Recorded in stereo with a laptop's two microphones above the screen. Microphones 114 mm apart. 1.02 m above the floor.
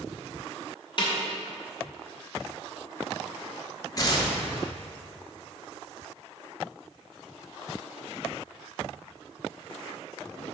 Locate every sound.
1.0 s a snare drum: 40° left (ahead or behind), 1.0 m
4.0 s tearing paper: 30° left (ahead or behind), 0.9 m